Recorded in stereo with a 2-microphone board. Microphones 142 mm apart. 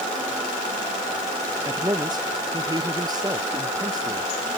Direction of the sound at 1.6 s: 30° right (ahead or behind).